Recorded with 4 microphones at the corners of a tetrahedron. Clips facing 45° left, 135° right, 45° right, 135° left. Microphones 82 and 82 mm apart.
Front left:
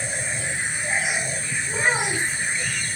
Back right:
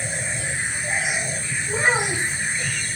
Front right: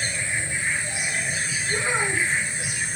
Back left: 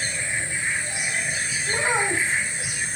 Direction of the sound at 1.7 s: 140° left.